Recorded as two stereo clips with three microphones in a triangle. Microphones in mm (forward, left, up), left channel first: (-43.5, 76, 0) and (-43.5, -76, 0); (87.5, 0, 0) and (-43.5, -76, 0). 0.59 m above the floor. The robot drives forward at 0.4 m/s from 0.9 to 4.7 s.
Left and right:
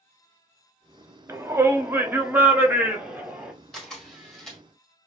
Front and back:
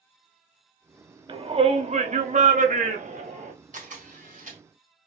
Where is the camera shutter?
175° left, 1.8 m.